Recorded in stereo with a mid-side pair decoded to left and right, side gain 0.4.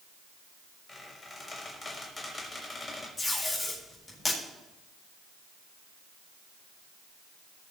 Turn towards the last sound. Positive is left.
turn(degrees=15)